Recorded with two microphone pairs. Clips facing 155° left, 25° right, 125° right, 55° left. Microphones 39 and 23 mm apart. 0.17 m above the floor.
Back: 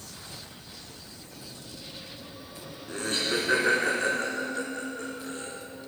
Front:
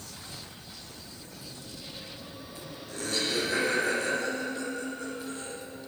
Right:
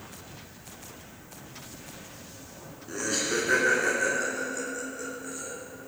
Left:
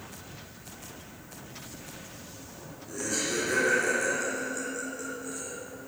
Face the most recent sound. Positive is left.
turn(degrees=155)